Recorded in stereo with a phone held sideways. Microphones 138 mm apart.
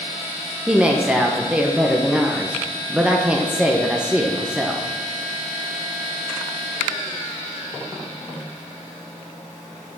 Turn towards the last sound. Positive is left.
turn(degrees=-10)  # may be behind; listen again after turning